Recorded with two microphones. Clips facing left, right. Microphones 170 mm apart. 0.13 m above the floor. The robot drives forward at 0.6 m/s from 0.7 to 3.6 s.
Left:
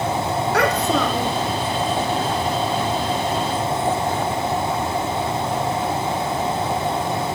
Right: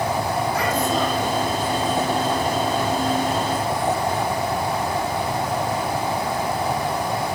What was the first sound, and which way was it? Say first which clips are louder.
A child speaking: left 5 dB; 75° left (ahead or behind).